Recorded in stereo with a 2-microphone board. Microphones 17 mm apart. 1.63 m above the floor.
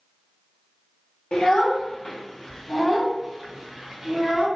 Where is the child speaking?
70° left (ahead or behind), 0.9 m; by 4.5 s 20° right (ahead or behind), 1.5 m.